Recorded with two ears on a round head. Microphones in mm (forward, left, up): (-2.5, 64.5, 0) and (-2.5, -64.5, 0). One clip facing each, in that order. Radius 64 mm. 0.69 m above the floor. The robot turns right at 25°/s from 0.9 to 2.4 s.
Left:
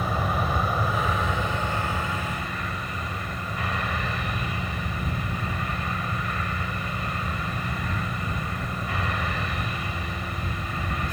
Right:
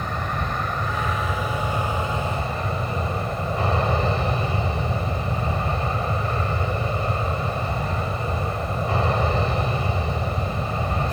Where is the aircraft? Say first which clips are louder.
Left 1 dB; 175° left; by 11.1 s 150° right.